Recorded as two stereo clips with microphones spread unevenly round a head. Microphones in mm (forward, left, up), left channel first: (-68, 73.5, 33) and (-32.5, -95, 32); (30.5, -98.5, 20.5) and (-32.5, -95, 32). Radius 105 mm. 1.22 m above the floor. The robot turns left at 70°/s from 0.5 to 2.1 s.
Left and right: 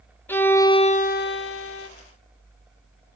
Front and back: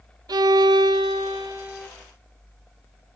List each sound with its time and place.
0.3 s a violin: straight behind, 0.8 m; by 1.9 s 85° left, 0.8 m